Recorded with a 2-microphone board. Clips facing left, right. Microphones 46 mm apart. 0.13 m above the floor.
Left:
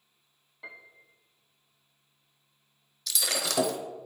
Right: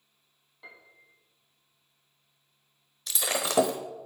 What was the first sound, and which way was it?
A piano, 5° left (ahead or behind).